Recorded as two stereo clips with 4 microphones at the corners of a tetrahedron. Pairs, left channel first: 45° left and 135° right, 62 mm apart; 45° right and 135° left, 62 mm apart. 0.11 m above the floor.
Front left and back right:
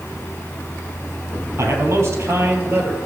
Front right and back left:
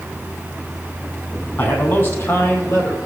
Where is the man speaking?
95° right, 3.5 m; by 3.0 s 80° right, 3 m.